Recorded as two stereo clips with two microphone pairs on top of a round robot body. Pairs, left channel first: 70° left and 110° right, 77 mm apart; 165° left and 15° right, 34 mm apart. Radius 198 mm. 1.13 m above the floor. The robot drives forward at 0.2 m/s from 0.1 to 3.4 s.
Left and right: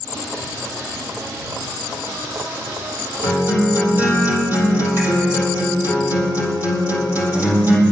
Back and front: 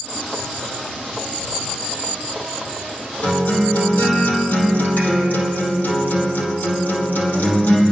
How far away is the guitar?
About 4 m.